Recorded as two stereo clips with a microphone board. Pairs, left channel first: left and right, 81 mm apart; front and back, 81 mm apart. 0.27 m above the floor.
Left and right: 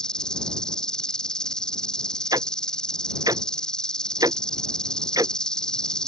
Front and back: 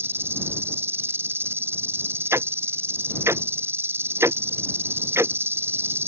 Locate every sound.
0.0 s an insect: 160° left
2.3 s ticking: 125° right